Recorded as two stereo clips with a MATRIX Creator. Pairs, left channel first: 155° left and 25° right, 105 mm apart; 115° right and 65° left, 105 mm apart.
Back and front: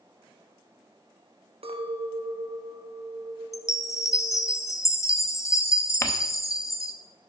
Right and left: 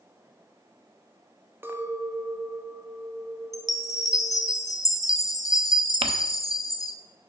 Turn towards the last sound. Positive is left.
turn(degrees=95)